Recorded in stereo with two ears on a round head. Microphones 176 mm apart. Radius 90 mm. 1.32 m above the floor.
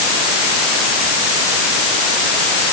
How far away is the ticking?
No ticking in this recording.